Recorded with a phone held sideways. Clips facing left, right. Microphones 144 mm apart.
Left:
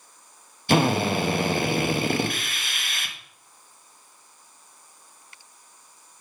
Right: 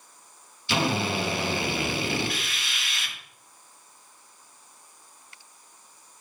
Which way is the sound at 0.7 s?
55° left (ahead or behind).